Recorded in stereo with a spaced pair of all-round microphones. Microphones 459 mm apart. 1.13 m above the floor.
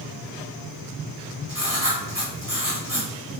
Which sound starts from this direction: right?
Writing, at 1.5 s.